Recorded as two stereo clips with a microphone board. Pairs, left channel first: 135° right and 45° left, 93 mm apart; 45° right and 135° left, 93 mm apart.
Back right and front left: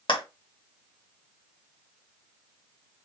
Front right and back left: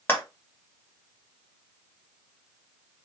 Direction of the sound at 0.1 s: 110° right.